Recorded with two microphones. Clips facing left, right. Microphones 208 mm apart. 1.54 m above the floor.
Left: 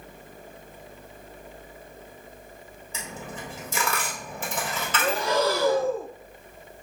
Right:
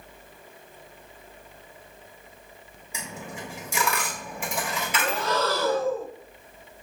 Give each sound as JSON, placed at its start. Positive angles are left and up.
{"t": 2.9, "sound": "a dropped coin", "side_deg": -10, "distance_m": 1.3}
{"t": 5.0, "sound": "breathing", "side_deg": 10, "distance_m": 0.5}